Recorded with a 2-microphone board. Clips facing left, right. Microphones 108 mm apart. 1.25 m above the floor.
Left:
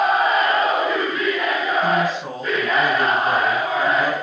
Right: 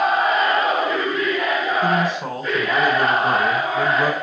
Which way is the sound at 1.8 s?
80° right.